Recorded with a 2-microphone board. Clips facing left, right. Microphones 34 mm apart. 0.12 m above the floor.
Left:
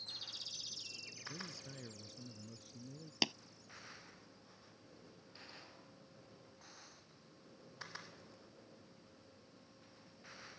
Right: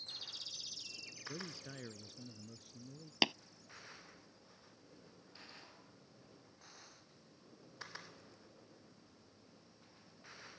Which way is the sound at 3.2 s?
20° right (ahead or behind).